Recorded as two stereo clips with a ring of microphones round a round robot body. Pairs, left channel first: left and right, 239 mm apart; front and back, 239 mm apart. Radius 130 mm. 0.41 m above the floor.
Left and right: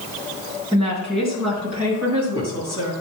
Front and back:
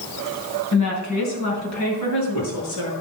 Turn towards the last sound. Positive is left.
turn(degrees=-10)